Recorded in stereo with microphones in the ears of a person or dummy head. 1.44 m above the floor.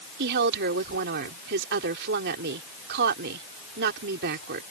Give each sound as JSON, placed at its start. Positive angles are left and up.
{"t": 0.2, "sound": "a woman speaking", "side_deg": -55}